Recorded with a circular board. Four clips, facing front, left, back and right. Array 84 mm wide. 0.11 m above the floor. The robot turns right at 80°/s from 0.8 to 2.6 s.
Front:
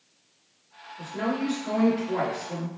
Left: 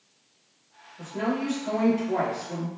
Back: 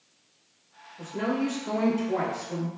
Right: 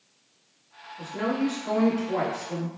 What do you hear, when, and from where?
1.0 s a woman speaking: 65° right, 1.4 m; by 2.7 s 65° left, 1.4 m